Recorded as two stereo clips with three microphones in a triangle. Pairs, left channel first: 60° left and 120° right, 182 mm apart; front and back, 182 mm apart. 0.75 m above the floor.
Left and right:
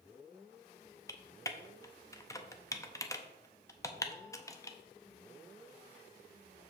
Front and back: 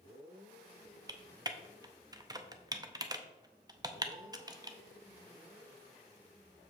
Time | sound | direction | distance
1.1 | typing on a keyboard | 125° left | 0.7 m